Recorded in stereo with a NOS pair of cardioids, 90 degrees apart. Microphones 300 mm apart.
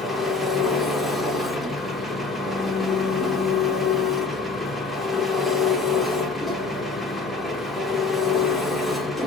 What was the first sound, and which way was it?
An engine running, straight ahead.